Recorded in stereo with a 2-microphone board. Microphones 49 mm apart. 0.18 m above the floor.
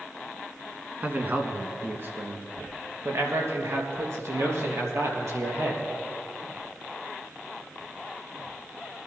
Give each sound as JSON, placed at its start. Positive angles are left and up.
{"t": 1.0, "sound": "a man speaking", "side_deg": -35, "distance_m": 1.8}